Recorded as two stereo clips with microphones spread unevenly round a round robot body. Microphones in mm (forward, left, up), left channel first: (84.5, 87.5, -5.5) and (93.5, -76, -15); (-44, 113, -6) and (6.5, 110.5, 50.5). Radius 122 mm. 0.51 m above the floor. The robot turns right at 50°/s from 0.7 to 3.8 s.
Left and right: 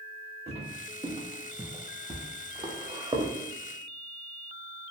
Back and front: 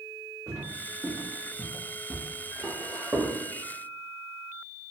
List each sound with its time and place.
0.5 s footsteps: 35° right, 1.4 m; by 3.3 s 20° right, 1.1 m